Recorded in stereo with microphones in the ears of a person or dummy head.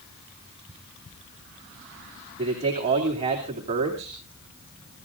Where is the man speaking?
30° right (ahead or behind), 2.5 m.